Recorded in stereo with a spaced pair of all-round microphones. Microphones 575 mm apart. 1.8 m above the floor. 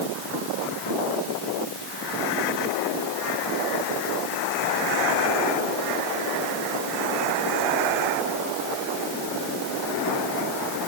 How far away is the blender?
I don't hear a blender.